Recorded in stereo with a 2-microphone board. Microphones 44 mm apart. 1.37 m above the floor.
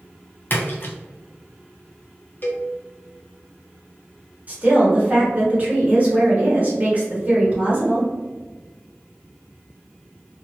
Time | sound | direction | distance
0.5 | a splash | 50° left (ahead or behind) | 0.8 m
2.4 | a cowbell | 50° left (ahead or behind) | 0.7 m
4.5 | a woman speaking | 35° right (ahead or behind) | 1.3 m